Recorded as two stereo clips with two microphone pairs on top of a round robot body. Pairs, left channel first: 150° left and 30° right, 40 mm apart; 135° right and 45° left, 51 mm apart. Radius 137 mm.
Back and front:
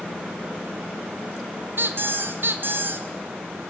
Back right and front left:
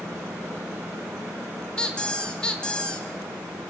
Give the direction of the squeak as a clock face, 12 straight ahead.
2 o'clock.